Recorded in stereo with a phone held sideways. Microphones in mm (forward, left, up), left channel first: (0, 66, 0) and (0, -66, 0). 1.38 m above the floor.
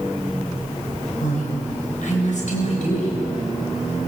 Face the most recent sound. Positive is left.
turn(degrees=65)  # may be behind; listen again after turning